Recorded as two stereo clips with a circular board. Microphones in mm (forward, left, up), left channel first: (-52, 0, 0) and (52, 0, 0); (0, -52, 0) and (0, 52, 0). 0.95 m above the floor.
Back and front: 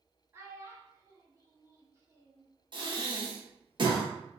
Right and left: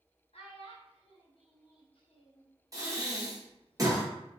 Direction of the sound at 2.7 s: 35° left.